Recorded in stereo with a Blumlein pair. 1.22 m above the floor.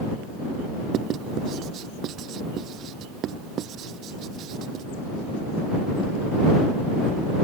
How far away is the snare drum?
No snare drum in this recording.